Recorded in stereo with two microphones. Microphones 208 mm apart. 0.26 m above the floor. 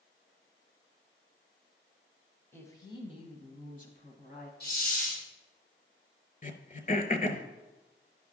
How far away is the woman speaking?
About 1.3 m.